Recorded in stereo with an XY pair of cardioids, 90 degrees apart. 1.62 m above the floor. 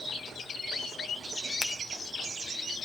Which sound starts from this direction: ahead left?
A finger snap, at 1.6 s.